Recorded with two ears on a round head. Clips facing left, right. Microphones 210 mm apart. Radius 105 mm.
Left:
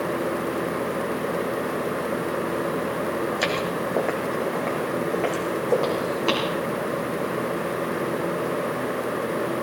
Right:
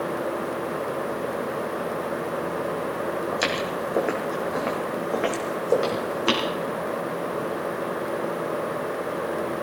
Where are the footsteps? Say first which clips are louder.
Left 1 dB; 5° right (ahead or behind), 3 m; by 6.5 s 25° right (ahead or behind), 4 m.